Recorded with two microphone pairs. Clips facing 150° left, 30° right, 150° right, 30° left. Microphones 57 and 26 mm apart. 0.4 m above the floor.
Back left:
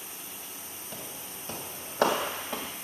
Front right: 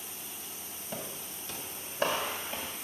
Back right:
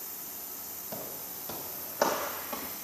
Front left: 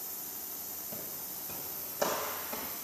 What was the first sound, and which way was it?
Footsteps, 110° right.